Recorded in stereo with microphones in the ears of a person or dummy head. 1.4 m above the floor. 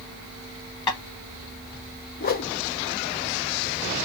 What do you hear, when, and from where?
0.9 s tapping: 20° left (ahead or behind), 1.5 m
2.2 s a whoosh: 45° left (ahead or behind), 0.6 m